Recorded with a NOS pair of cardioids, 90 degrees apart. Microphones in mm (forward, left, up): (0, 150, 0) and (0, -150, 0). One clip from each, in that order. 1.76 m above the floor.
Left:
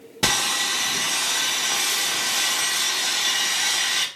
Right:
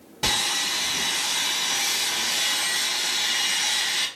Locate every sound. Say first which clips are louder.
0.2 s sawing: left 2 dB; 50° left, 1.0 m